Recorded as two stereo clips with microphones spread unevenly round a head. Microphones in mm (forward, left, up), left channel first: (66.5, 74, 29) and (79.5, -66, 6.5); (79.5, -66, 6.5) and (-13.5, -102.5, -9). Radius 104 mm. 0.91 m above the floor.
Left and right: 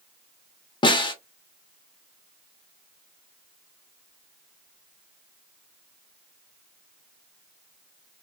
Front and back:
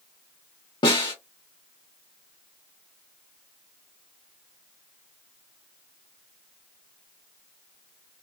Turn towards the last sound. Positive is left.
turn(degrees=55)